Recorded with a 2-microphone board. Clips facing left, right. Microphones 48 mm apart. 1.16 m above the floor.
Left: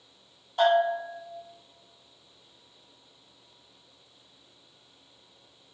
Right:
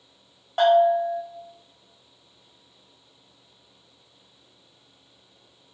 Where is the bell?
60° right (ahead or behind), 1.2 m.